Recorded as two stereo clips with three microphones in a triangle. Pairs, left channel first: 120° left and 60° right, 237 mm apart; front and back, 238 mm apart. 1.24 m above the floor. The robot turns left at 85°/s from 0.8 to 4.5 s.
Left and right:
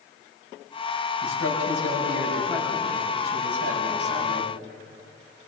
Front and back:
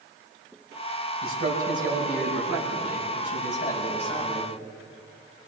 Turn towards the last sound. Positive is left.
turn(degrees=-125)